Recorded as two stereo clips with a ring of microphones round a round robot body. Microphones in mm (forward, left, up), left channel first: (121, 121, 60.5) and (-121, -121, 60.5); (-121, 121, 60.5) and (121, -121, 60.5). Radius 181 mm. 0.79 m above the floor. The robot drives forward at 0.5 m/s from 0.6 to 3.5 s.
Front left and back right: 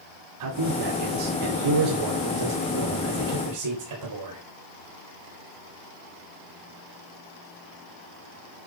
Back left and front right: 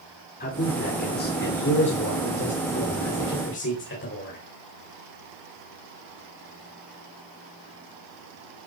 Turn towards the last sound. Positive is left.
turn(degrees=-170)